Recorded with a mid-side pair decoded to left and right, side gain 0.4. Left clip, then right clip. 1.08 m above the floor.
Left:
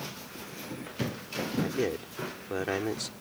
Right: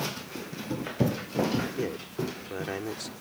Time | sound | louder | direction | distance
1.6 | a man speaking | left 2 dB | 35° left | ?